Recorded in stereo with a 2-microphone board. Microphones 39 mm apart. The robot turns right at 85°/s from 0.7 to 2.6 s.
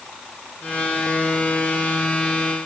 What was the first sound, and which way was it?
Only background noise.